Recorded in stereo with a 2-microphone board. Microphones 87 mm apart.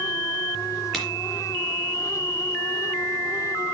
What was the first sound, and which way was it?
A crack, 5° left (ahead or behind).